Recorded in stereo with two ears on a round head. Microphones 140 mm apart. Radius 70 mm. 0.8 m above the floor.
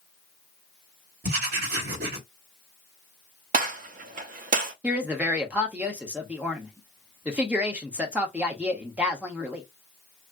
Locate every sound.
1.2 s writing: 65° right (ahead or behind), 2.5 m
3.5 s a gunshot: 55° right (ahead or behind), 1.1 m
4.8 s a woman speaking: 10° right (ahead or behind), 1.2 m